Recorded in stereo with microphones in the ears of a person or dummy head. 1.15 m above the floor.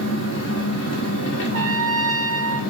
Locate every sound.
0.0 s an engine running: 70° left (ahead or behind), 1.2 m
1.5 s a trumpet: 15° left (ahead or behind), 1.7 m